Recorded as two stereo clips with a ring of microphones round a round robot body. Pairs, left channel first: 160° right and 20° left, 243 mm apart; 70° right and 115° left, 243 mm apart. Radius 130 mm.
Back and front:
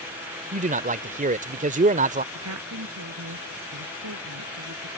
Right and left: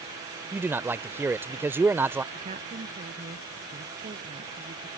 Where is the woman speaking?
50° left.